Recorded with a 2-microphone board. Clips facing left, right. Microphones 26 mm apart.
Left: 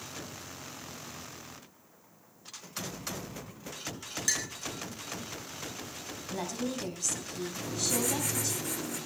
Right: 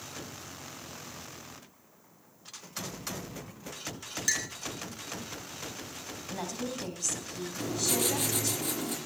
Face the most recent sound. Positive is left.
turn(degrees=-80)